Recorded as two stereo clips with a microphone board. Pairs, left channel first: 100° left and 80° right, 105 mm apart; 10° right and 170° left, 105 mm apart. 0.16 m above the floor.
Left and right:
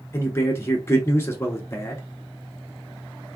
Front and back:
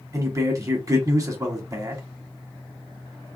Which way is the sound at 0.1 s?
145° left.